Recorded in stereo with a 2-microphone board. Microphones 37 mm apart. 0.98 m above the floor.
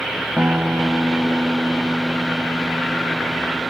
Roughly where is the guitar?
Right.